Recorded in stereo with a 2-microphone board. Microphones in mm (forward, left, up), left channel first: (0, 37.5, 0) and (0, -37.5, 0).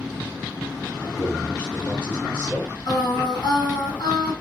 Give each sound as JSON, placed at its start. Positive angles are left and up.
{"t": 1.0, "sound": "a man speaking", "side_deg": 35, "distance_m": 3.0}
{"t": 2.9, "sound": "singing", "side_deg": 70, "distance_m": 3.5}